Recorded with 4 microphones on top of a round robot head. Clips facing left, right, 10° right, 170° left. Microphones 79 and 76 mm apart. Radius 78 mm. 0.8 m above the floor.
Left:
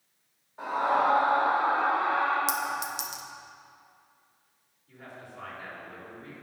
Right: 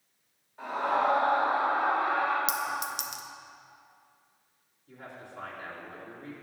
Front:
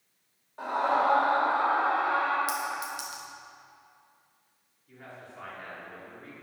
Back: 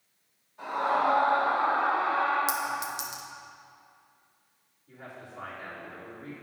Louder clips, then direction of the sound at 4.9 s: Even, back 2 dB; 115° right.